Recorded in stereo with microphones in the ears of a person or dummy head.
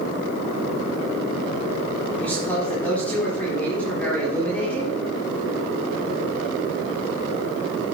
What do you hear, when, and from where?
2.2 s a man speaking: 5° left (ahead or behind), 3.5 m